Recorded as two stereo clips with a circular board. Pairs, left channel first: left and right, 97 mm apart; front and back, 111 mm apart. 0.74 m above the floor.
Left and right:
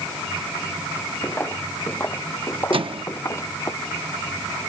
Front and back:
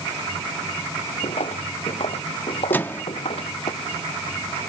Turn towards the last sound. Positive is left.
turn(degrees=-70)